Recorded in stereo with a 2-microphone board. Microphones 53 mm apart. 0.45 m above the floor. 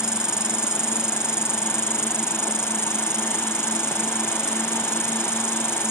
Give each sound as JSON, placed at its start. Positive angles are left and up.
{"t": 0.0, "sound": "an insect", "side_deg": -15}